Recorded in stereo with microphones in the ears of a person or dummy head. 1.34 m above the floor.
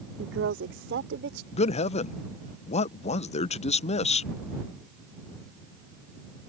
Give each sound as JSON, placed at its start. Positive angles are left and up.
{"t": 0.2, "sound": "a woman speaking", "side_deg": -65}
{"t": 1.5, "sound": "a man speaking", "side_deg": 30}